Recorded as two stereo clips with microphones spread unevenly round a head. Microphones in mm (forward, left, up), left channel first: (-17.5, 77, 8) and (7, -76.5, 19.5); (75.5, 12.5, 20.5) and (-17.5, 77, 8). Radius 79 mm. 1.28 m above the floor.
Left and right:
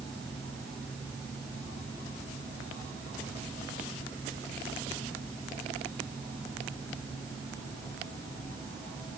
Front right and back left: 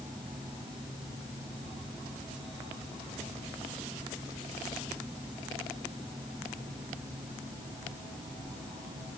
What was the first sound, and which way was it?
Only background noise.